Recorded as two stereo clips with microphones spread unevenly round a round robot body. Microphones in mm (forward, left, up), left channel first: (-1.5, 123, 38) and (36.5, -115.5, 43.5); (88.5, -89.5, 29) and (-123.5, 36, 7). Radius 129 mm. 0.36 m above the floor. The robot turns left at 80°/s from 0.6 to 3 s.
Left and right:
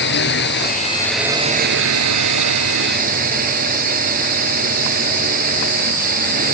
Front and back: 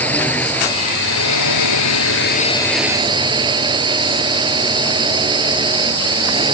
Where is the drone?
55° left; by 6.5 s 140° right.